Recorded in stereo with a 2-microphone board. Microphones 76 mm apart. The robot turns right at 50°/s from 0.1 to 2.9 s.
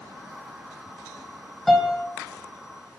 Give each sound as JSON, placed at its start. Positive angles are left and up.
{"t": 1.7, "sound": "a piano", "side_deg": 0, "distance_m": 1.6}